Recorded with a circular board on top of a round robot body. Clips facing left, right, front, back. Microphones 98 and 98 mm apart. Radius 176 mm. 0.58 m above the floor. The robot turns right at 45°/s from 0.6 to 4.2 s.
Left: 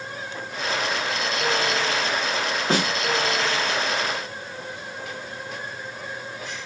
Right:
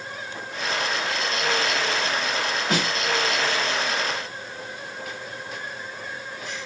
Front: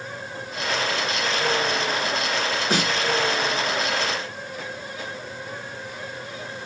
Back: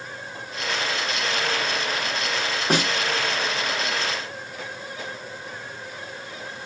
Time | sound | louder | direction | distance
2.7 | a snare drum | left 3 dB, back 3 dB | 145° left | 1.3 m